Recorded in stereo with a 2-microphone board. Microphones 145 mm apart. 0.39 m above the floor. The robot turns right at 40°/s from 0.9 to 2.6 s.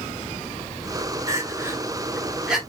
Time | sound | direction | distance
1.3 | crying | 20° right (ahead or behind) | 1.4 m